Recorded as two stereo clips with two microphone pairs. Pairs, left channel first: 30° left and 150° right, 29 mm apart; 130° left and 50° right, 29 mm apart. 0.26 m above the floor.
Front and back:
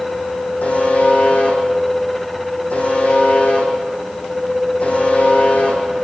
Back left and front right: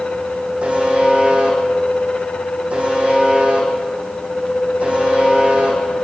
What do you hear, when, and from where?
0.6 s a buzzer: 5° left, 8.5 m